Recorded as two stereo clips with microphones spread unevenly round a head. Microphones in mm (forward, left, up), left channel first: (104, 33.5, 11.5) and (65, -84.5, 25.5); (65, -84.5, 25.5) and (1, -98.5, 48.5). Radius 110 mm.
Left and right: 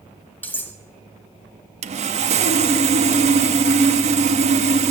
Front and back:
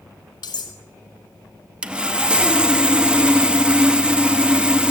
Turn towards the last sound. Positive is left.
turn(degrees=-110)